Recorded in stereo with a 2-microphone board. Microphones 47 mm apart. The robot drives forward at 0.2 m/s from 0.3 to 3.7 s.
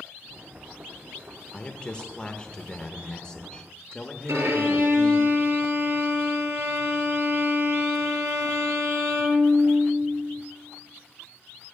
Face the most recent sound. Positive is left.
turn(degrees=-85)